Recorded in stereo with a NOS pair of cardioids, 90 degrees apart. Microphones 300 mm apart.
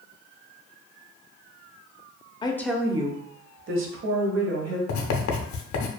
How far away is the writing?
About 0.6 m.